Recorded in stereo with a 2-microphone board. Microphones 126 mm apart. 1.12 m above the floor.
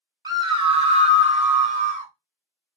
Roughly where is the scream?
Right.